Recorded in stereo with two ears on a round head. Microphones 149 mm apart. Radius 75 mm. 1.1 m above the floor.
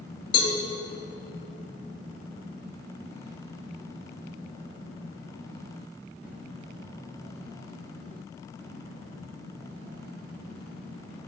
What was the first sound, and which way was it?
A cowbell, 35° left (ahead or behind).